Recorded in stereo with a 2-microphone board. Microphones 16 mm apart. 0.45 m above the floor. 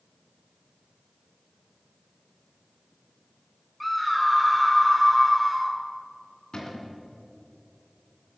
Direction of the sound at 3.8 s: Centre (ahead or behind).